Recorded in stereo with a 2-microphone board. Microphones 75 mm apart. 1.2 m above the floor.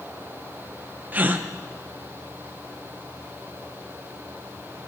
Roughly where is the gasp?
Right.